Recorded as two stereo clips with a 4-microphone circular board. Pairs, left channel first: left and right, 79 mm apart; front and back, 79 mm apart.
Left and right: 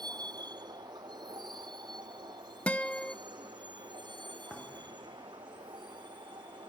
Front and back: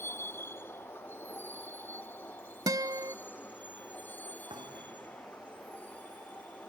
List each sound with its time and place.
0.0 s a vehicle: 60° right; by 6.7 s 70° right
2.7 s a guitar: 160° left
4.5 s a thud: 170° left